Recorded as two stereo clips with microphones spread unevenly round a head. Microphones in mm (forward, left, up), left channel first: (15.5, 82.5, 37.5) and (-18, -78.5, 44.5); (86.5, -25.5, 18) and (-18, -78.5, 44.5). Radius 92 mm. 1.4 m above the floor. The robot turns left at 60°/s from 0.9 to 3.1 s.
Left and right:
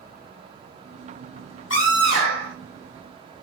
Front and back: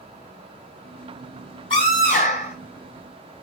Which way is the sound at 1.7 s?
80° left.